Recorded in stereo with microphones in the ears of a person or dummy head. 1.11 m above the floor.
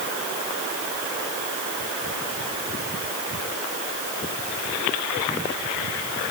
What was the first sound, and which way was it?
Only background noise.